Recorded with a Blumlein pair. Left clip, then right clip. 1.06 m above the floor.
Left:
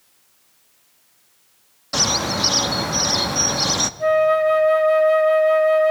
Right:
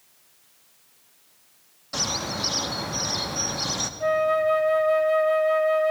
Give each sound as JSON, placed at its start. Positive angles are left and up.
{"t": 1.9, "sound": "a bird", "azimuth_deg": 70, "distance_m": 0.9}
{"t": 4.0, "sound": "a flute", "azimuth_deg": 15, "distance_m": 0.7}